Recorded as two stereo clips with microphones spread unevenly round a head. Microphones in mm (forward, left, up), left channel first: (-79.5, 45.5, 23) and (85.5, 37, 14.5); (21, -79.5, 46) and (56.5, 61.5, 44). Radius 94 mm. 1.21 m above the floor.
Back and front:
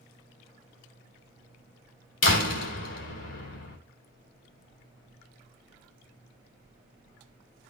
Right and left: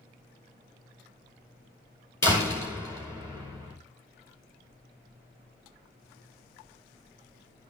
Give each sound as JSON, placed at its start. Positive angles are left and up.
{"t": 2.2, "sound": "a door slam", "azimuth_deg": 180, "distance_m": 3.0}